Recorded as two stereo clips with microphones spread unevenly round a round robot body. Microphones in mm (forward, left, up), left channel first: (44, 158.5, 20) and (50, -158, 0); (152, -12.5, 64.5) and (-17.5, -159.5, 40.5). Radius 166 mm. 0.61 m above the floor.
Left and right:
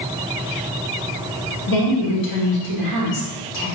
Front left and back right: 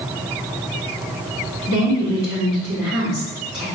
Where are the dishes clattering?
No dishes clattering in this recording.